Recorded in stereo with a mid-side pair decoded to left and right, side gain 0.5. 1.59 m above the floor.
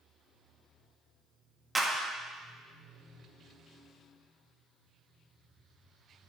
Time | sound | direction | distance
1.8 | a clap | 10° right | 2 m